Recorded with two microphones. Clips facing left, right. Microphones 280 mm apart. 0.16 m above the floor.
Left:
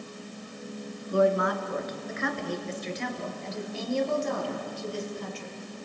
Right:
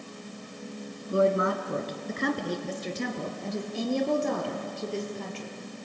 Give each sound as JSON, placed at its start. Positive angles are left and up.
{"t": 1.1, "sound": "a woman speaking", "side_deg": -25, "distance_m": 2.0}